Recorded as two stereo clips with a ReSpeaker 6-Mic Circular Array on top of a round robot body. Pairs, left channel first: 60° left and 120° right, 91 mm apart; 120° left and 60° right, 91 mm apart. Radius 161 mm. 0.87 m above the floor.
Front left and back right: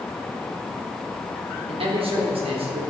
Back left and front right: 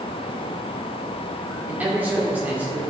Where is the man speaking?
135° right, 2.5 m.